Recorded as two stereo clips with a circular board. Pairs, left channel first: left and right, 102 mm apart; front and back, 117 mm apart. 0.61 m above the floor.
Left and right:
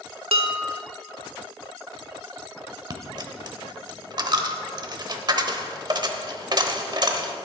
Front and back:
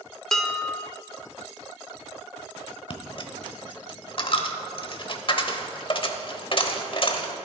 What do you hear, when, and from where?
0.3 s dishes clattering: 85° right, 1.0 m
2.9 s a dropped coin: 45° right, 0.9 m